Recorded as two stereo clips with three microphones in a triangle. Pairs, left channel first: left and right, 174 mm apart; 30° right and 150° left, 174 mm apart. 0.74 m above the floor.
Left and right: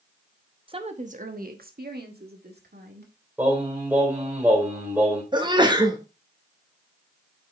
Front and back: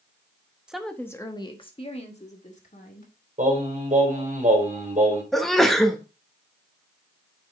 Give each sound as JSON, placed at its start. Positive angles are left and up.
{"t": 0.7, "sound": "a woman speaking", "azimuth_deg": -125, "distance_m": 0.8}
{"t": 3.4, "sound": "singing", "azimuth_deg": -170, "distance_m": 3.0}
{"t": 5.3, "sound": "a sneeze", "azimuth_deg": -115, "distance_m": 1.1}